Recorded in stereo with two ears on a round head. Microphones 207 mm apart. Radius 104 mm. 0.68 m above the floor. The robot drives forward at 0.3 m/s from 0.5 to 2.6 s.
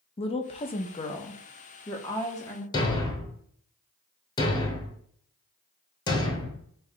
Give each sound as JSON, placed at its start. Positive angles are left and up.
{"t": 0.2, "sound": "a woman speaking", "side_deg": 25, "distance_m": 0.6}
{"t": 2.7, "sound": "a thud", "side_deg": 20, "distance_m": 0.8}